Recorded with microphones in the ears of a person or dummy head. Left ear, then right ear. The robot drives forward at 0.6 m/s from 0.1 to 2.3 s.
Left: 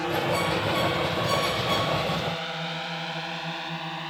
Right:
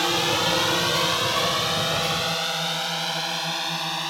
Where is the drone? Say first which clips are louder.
Right 4 dB; 70° right (ahead or behind); by 4.1 s 85° right.